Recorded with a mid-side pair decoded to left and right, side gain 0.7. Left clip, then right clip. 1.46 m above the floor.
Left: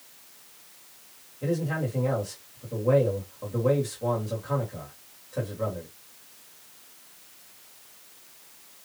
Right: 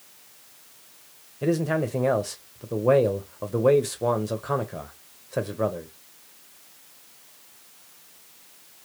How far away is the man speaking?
About 1.0 m.